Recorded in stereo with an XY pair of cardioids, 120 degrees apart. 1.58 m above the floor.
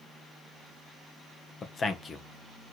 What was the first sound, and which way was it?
A man speaking, 35° left.